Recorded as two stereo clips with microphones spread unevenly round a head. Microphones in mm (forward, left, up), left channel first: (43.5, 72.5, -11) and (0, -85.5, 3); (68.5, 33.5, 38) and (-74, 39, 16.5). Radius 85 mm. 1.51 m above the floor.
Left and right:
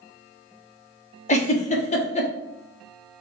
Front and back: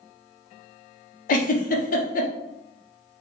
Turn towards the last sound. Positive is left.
turn(degrees=25)